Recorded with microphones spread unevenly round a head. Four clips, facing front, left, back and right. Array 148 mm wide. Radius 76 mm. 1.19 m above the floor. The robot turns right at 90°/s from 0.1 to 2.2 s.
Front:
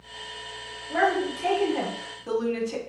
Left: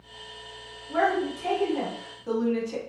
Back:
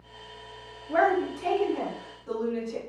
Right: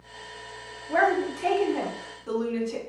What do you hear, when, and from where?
0.9 s a woman speaking: 110° right, 0.9 m; by 2.8 s 10° left, 0.9 m